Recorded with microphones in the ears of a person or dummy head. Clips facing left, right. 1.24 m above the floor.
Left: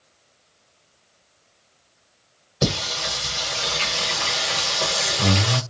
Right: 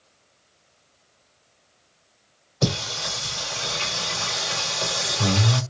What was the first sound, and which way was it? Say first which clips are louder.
Singing: left 1 dB; 15° left (ahead or behind).